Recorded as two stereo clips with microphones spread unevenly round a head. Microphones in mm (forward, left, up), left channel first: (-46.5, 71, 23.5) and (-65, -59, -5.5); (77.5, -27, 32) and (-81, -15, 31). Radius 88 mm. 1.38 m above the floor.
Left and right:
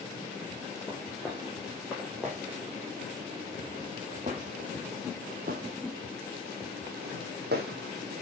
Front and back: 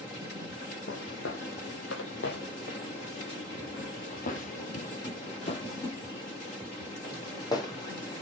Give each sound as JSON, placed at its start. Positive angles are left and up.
{"t": 0.9, "sound": "footsteps", "azimuth_deg": 0, "distance_m": 3.5}